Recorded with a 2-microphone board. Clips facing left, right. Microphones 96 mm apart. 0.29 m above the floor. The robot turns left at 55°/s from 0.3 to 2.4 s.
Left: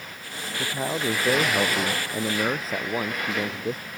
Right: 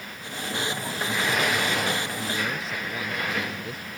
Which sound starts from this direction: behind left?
A man speaking, at 0.6 s.